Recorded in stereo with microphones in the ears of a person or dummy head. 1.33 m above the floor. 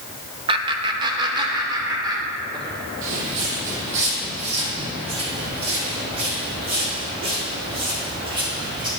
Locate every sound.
0.5 s laughter: 30° right (ahead or behind), 0.6 m; by 2.8 s 25° right (ahead or behind), 3.5 m
3.0 s footsteps: 45° right (ahead or behind), 3 m; by 8.9 s 25° right (ahead or behind), 6 m